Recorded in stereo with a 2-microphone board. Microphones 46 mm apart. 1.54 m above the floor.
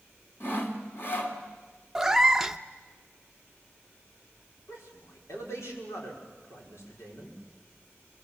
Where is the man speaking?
80° left, 5.5 m.